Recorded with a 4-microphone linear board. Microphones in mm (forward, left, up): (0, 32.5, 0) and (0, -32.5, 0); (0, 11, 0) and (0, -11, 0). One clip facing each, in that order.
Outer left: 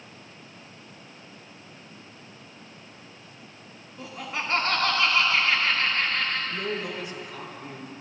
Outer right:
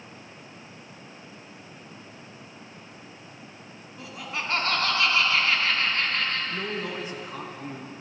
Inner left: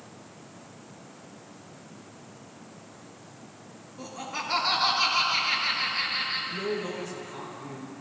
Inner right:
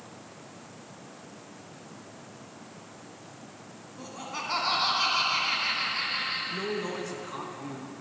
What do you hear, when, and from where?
4.0 s laughter: centre (ahead or behind), 1.2 m
6.5 s a man speaking: 40° right (ahead or behind), 1.7 m